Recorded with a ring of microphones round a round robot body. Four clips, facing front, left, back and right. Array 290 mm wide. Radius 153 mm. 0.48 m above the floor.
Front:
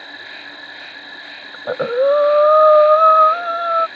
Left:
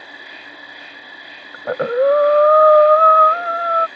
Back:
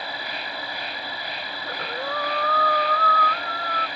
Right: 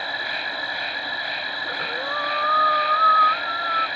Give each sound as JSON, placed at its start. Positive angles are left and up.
{"t": 0.0, "sound": "an insect", "azimuth_deg": -130}
{"t": 1.5, "sound": "breathing", "azimuth_deg": 45}